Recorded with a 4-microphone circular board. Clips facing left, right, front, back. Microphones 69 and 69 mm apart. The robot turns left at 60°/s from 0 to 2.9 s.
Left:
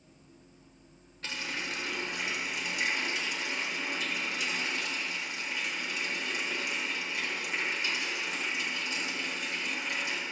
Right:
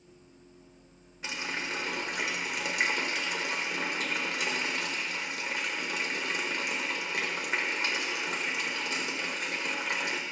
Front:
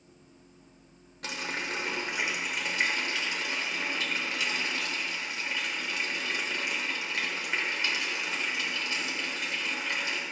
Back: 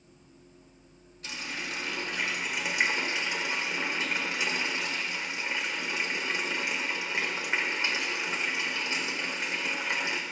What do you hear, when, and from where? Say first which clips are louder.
1.2 s a running tap: right 2 dB, front 3 dB; 15° right, 1.4 m; by 10.2 s 115° right, 1.4 m